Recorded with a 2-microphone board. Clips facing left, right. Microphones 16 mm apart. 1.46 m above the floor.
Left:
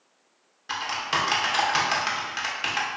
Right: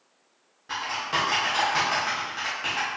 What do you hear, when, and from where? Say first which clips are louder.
0.7 s typing on a keyboard: left 1 dB; 50° left (ahead or behind), 0.9 m